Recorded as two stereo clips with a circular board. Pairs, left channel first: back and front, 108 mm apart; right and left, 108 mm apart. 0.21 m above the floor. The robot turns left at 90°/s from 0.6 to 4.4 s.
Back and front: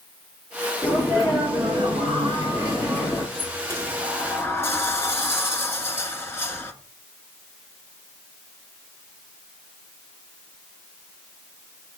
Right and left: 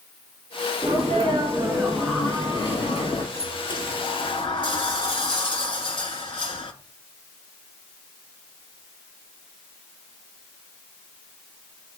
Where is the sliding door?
20° right, 0.9 m; by 6.7 s 115° right, 0.9 m.